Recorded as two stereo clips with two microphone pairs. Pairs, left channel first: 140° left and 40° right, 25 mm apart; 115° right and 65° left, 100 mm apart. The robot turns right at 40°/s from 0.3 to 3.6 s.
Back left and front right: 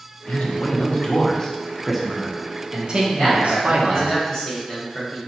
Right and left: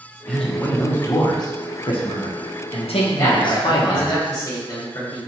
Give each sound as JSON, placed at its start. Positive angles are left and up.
{"t": 0.3, "sound": "a man speaking", "azimuth_deg": 155, "distance_m": 0.7}
{"t": 3.2, "sound": "a man speaking", "azimuth_deg": 180, "distance_m": 1.1}